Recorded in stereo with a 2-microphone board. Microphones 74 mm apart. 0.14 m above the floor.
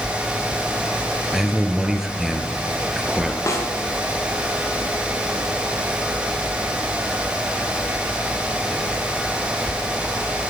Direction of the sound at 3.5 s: 40° left (ahead or behind).